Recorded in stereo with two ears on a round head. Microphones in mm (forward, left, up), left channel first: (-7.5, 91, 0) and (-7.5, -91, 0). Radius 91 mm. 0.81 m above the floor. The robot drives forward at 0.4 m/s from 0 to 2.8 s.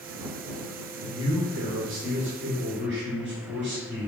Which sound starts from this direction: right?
A man speaking, at 1.0 s.